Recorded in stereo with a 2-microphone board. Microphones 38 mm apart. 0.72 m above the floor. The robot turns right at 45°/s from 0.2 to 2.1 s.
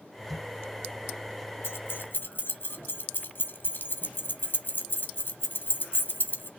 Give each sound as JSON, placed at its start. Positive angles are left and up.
{"t": 1.6, "sound": "keys jangling", "side_deg": 75, "distance_m": 1.1}